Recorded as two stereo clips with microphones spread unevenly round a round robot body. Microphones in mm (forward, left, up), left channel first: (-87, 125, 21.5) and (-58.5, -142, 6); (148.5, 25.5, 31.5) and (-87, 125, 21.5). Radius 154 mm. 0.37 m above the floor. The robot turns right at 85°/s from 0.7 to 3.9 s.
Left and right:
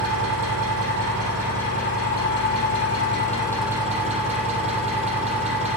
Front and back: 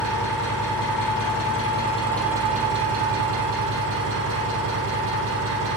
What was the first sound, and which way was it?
An engine running, 65° right.